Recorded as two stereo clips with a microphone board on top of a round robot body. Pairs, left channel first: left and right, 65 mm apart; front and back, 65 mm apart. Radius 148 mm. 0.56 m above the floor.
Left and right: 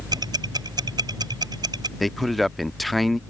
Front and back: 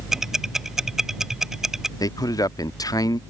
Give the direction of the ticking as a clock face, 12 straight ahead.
3 o'clock.